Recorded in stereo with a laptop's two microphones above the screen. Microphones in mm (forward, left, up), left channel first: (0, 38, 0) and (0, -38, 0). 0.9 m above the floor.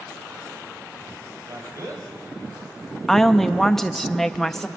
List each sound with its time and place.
1.5 s a man speaking: 45° right (ahead or behind), 3.5 m
3.1 s a woman speaking: 5° left (ahead or behind), 1.0 m